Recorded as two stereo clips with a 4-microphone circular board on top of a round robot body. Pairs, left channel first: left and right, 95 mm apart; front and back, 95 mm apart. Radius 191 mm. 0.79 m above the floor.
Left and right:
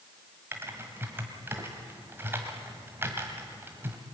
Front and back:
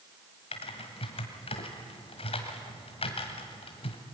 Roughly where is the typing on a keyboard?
Ahead.